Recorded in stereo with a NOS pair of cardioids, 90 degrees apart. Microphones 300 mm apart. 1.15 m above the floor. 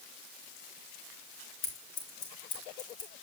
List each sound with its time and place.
1.6 s scissors: 60° left, 5 m